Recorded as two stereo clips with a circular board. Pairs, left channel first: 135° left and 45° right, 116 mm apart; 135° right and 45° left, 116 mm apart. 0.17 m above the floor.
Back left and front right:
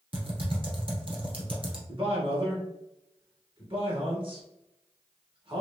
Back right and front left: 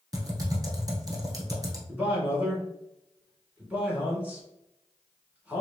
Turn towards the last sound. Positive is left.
turn(degrees=-30)